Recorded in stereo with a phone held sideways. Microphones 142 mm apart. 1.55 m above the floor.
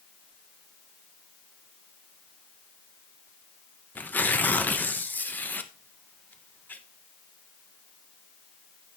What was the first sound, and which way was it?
Tearing paper, 10° left (ahead or behind).